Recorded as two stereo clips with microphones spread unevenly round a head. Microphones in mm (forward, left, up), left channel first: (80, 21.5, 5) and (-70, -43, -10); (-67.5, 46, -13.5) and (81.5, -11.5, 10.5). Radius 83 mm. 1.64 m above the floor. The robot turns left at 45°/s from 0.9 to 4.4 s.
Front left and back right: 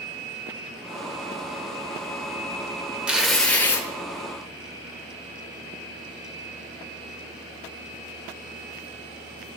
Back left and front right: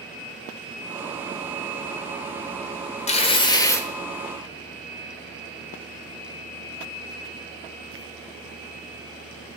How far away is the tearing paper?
About 1.1 m.